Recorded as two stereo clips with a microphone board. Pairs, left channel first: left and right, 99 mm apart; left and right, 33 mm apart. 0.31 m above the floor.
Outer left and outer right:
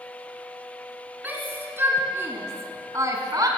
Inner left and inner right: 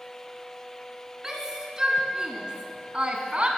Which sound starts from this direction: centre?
A shout, at 1.2 s.